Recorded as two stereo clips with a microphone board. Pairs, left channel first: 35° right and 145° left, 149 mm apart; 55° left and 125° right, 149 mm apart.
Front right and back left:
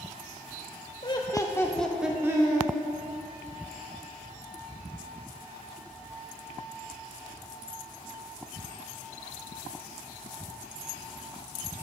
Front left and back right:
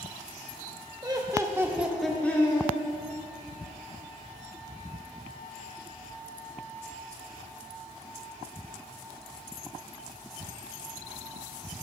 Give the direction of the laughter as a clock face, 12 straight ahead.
2 o'clock.